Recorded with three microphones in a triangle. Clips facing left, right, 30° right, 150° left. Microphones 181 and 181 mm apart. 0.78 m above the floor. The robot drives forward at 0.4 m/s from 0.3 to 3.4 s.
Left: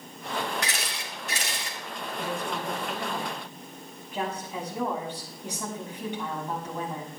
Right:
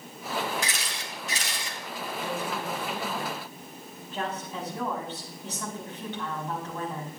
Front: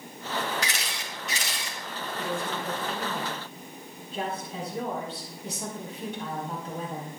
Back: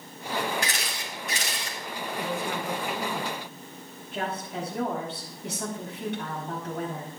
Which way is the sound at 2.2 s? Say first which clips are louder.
Left 1 dB, back 1 dB; 165° left.